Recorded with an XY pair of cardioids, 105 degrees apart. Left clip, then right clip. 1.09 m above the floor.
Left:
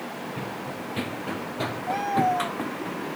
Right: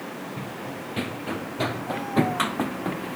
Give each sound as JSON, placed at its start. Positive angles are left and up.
{"t": 0.4, "sound": "running footsteps", "azimuth_deg": 5}